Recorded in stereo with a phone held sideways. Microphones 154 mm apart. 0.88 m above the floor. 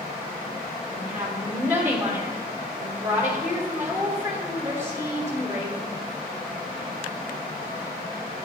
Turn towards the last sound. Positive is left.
turn(degrees=-15)  # may be behind; listen again after turning